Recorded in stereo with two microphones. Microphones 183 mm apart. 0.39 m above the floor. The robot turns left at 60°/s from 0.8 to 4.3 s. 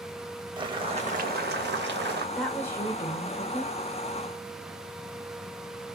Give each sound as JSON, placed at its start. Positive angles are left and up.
{"t": 0.6, "sound": "boiling", "azimuth_deg": -30, "distance_m": 0.5}
{"t": 2.4, "sound": "a woman speaking", "azimuth_deg": 180, "distance_m": 1.1}